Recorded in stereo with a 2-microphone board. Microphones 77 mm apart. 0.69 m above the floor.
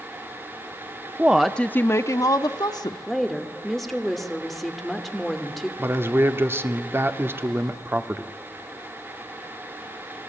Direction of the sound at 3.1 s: 5° left (ahead or behind).